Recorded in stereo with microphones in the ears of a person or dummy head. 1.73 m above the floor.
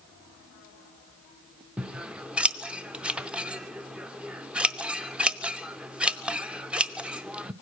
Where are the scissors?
Centre (ahead or behind), 0.5 m.